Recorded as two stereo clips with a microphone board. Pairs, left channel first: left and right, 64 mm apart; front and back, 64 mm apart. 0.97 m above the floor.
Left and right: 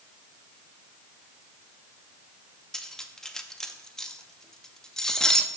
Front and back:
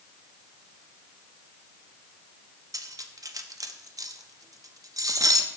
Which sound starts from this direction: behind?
Cutlery clinking, at 2.7 s.